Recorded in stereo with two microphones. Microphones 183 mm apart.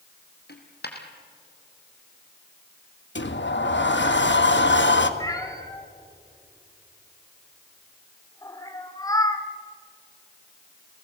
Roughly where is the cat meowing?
Centre.